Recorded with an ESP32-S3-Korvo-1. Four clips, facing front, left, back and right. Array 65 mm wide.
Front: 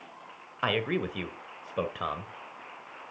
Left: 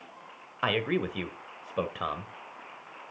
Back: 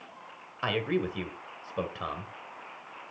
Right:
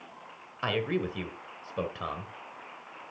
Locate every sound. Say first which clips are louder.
0.6 s a man speaking: left 2 dB, even; 55° left, 0.9 m